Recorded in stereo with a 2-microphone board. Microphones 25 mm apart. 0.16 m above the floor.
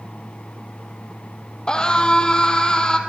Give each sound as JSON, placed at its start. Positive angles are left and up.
{"t": 1.7, "sound": "a scream", "side_deg": 30, "distance_m": 5.5}